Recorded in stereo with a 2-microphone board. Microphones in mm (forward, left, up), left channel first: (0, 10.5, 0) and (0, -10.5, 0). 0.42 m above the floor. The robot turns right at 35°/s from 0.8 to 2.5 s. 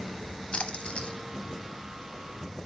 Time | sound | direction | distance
0.5 | a splash | 60° left (ahead or behind) | 0.9 m